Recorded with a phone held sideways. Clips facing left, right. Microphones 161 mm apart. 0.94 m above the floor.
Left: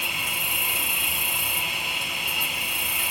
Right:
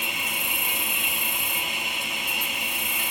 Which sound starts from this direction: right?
An insect, at 0.0 s.